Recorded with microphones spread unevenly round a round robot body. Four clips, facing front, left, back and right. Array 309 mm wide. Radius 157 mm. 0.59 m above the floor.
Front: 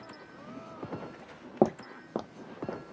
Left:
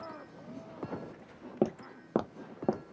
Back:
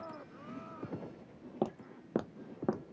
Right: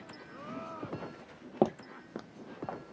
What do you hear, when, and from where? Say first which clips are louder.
1.6 s footsteps: right 2 dB, front 10 dB; straight ahead; by 2.8 s 115° left